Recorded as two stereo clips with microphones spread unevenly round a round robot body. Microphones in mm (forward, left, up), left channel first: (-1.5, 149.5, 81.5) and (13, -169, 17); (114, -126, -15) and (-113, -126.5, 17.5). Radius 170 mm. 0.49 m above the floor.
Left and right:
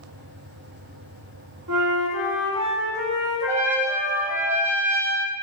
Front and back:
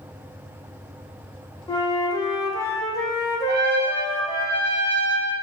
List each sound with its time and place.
1.7 s a flute: 70° right, 1.7 m
3.5 s a trumpet: 155° right, 1.2 m